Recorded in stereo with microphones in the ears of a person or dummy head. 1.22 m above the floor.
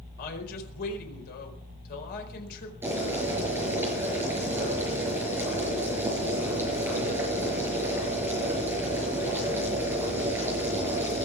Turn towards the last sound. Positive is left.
turn(degrees=-15)  # may be behind; listen again after turning